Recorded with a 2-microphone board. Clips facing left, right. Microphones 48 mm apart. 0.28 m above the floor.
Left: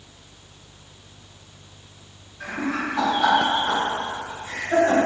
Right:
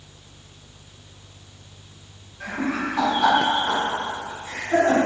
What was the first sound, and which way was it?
Laughter, 10° right (ahead or behind).